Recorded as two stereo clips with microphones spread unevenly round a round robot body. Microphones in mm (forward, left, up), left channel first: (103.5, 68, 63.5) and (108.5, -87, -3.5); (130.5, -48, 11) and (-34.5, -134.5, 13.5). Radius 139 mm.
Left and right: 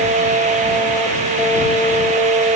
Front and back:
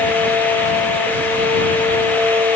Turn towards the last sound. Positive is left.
No sound to turn to.